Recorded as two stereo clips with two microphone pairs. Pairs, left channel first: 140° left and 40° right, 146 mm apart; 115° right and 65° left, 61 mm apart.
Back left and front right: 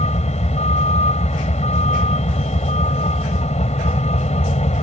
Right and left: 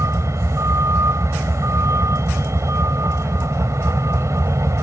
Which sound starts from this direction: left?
A vehicle, at 0.0 s.